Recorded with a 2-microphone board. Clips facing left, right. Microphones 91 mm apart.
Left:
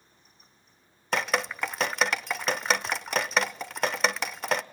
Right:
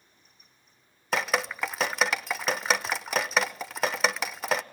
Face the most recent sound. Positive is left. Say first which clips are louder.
# even
turn(degrees=0)  # may be behind; listen again after turning